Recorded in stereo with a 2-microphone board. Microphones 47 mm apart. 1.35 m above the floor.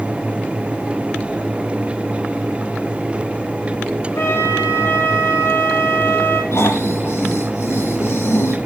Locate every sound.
4.2 s a flute: 75° left (ahead or behind), 8 m
6.5 s snoring: 75° left (ahead or behind), 9.5 m